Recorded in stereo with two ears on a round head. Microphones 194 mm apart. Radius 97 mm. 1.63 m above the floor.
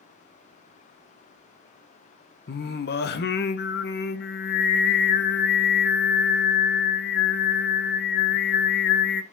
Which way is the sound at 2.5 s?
50° left (ahead or behind).